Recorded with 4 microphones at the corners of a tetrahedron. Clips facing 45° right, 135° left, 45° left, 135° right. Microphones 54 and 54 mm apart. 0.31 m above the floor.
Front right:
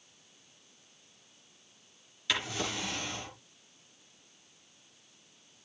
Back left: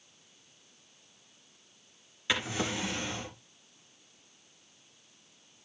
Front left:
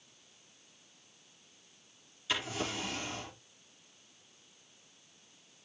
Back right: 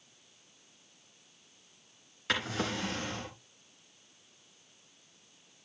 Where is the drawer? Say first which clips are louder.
Back left 2 dB, back right 3 dB; 160° right, 3 m.